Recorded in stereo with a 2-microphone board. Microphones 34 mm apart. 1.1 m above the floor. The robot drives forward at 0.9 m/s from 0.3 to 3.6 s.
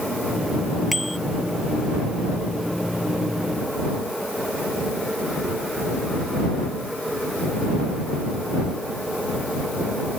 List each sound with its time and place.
0.9 s a bicycle bell: centre (ahead or behind)